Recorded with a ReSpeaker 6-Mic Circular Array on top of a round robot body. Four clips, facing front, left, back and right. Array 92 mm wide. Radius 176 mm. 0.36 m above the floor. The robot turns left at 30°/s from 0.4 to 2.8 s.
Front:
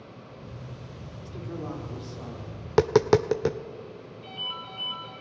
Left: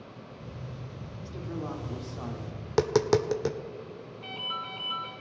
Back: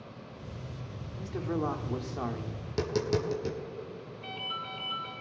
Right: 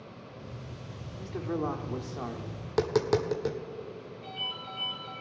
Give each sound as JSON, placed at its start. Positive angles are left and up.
{"t": 1.2, "sound": "a man speaking", "azimuth_deg": -130, "distance_m": 1.5}
{"t": 2.7, "sound": "tapping", "azimuth_deg": 15, "distance_m": 0.6}
{"t": 4.2, "sound": "a ringtone", "azimuth_deg": 90, "distance_m": 4.5}